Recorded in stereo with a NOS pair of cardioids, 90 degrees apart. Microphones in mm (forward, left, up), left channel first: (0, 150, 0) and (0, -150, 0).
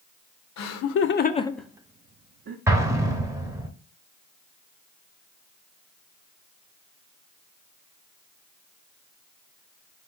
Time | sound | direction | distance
0.6 | laughter | 65° left | 0.8 m
2.7 | an explosion | 10° right | 1.1 m